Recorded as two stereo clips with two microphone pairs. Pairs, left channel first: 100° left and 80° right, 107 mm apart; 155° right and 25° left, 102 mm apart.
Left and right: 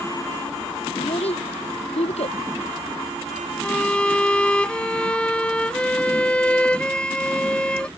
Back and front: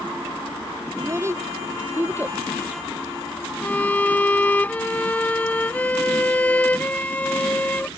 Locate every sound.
1.0 s a child speaking: 90° left; by 2.4 s 100° left
3.6 s a violin: 165° left